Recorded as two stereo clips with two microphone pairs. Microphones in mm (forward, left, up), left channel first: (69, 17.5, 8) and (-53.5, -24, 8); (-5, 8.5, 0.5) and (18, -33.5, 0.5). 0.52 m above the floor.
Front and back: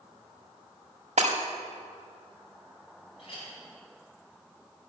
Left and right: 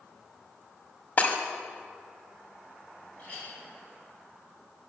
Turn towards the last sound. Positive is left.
turn(degrees=60)